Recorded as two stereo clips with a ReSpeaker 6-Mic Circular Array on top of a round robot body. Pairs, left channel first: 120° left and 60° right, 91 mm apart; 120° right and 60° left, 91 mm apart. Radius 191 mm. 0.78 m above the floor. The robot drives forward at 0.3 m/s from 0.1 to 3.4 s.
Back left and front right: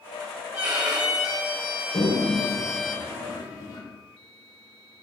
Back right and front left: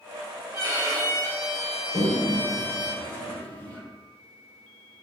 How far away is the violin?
About 3 m.